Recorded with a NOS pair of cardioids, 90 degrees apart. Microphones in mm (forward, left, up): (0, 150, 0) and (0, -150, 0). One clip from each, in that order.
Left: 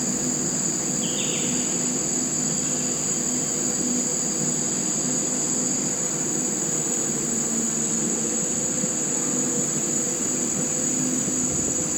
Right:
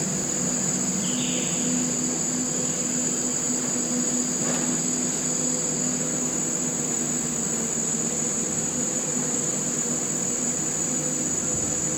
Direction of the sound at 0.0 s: 60° left.